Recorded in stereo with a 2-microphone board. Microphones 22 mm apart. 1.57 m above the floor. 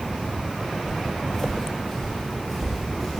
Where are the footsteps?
30° left (ahead or behind), 1.7 m; by 3.2 s 5° left (ahead or behind), 2 m.